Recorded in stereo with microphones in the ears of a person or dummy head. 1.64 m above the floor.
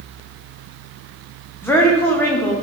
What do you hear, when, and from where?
1.6 s a woman speaking: 10° left (ahead or behind), 1.0 m